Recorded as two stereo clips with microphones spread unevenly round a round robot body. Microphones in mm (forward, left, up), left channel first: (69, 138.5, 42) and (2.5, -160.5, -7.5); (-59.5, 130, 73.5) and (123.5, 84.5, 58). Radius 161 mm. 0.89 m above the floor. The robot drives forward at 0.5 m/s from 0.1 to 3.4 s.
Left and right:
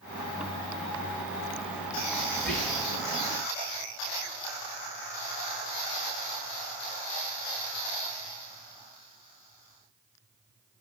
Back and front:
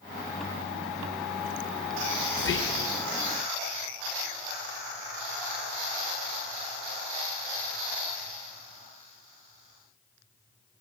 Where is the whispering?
170° left, 0.8 m.